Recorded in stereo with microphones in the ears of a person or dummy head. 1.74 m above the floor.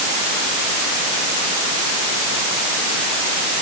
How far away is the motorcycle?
I don't hear a motorcycle.